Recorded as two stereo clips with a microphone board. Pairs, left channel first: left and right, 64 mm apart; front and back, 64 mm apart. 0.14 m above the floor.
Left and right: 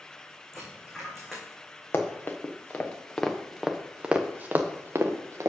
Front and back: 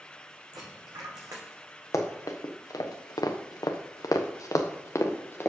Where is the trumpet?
No trumpet in this recording.